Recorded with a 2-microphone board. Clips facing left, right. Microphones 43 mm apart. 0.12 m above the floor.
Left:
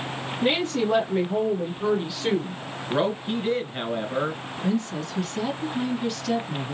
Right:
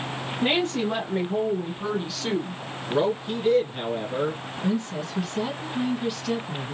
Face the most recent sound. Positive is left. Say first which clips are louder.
# left 1 dB
turn(degrees=-5)  # may be behind; listen again after turning